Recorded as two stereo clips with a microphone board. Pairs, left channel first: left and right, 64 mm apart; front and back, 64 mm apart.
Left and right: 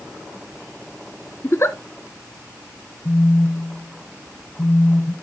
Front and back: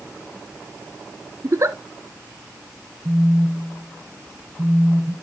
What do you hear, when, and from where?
1.4 s a giggle: 140° left, 0.7 m
3.0 s a phone buzzing: 120° left, 2.5 m